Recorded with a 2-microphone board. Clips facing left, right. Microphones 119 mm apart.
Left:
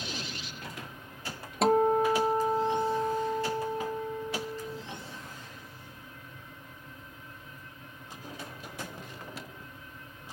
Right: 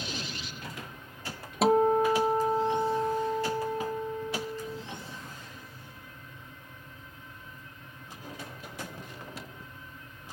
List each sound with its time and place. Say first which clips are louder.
1.6 s a guitar: right 1 dB; centre (ahead or behind)